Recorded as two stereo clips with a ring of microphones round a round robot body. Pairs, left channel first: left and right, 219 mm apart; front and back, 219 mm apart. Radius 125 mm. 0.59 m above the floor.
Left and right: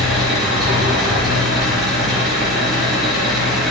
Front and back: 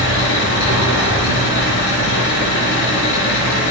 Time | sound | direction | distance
0.0 | an engine running | straight ahead | 5.5 m